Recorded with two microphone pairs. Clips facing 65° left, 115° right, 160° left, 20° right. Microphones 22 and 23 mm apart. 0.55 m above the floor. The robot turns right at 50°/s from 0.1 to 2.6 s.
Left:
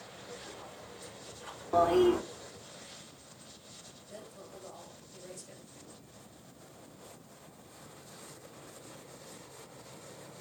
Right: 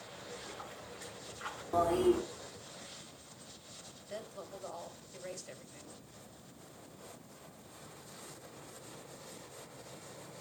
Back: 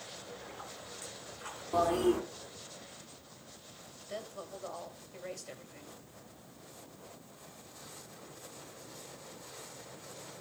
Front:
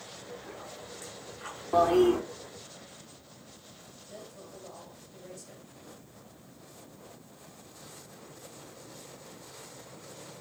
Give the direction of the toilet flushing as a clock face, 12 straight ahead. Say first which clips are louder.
Left 4 dB, front 6 dB; 12 o'clock.